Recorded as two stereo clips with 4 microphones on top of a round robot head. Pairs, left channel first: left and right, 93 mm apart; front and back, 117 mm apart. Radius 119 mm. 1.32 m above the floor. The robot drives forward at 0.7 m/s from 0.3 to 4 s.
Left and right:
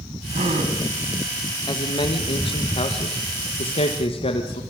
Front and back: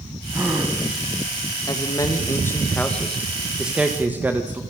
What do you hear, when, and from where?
0.3 s a gasp: 100° right, 2.5 m; by 0.8 s 105° right, 2.5 m
1.7 s a man speaking: 55° left, 2 m; by 4.6 s 105° left, 1.9 m